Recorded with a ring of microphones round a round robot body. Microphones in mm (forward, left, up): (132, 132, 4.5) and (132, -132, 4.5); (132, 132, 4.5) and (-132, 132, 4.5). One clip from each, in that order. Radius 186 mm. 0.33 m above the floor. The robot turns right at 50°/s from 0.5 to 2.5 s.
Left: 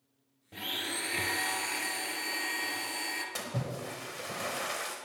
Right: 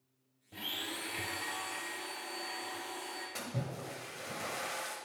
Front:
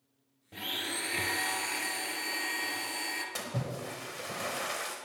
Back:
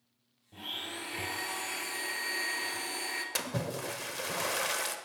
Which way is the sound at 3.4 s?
155° left.